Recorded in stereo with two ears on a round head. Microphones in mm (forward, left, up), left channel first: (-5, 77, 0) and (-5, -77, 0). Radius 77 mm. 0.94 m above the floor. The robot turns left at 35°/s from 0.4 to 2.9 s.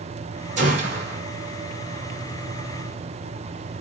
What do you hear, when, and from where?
0.6 s a gunshot: 45° right (ahead or behind), 2.5 m; by 1.2 s 70° right (ahead or behind), 2.5 m